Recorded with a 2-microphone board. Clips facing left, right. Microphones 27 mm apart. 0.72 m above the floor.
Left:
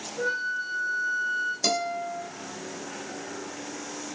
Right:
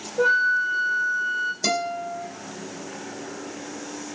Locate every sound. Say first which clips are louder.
0.2 s a flute: right 9 dB; 75° right (ahead or behind), 1.6 m
1.6 s a guitar: right 2 dB; centre (ahead or behind), 3 m